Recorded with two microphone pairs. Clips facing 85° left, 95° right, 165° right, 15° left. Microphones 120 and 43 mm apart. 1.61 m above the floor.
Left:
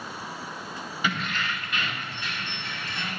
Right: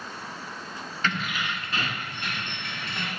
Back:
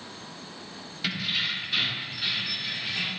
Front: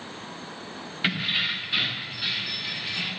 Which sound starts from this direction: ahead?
Keys jangling, at 1.0 s.